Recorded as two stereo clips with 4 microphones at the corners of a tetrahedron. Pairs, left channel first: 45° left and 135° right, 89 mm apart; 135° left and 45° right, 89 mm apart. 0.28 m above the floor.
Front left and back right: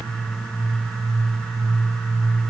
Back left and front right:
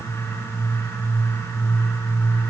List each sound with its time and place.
Only background noise.